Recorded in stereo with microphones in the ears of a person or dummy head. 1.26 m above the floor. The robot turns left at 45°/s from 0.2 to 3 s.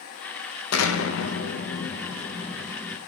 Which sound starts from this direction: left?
An explosion, at 0.7 s.